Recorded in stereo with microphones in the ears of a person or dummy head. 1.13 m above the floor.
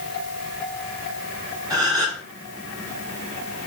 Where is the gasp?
20° right (ahead or behind), 3.5 m.